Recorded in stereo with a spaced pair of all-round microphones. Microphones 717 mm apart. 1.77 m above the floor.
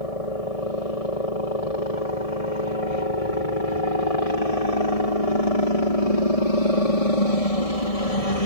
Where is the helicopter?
55° left (ahead or behind).